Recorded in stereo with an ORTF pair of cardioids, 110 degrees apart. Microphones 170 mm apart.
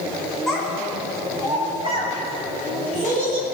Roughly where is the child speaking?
Ahead.